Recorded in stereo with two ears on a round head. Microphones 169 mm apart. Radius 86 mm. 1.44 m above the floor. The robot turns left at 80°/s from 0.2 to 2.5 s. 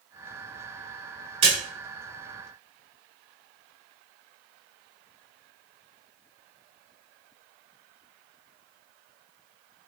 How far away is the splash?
About 1.9 m.